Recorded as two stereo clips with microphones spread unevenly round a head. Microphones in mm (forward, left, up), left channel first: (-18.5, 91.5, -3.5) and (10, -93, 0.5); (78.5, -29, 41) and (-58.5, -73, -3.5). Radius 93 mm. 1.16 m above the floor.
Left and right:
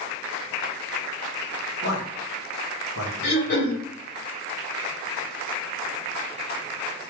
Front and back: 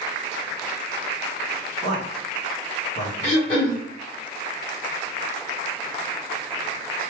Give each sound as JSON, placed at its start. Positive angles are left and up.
{"t": 1.8, "sound": "a man speaking", "azimuth_deg": 75, "distance_m": 1.1}
{"t": 3.2, "sound": "throat clearing", "azimuth_deg": 70, "distance_m": 1.6}